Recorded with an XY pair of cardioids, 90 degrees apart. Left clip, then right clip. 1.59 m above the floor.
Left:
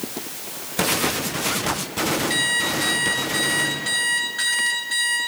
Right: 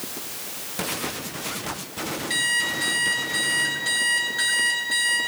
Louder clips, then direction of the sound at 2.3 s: Right 2 dB; 5° left.